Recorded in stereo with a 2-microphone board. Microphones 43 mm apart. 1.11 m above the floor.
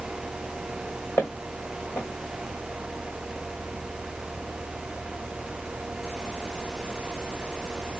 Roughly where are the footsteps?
Left.